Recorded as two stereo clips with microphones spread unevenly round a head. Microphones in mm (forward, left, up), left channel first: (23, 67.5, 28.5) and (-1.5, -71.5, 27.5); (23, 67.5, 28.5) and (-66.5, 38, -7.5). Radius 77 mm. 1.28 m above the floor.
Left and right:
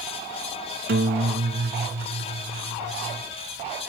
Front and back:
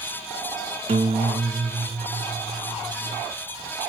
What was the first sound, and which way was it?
A guitar, 125° right.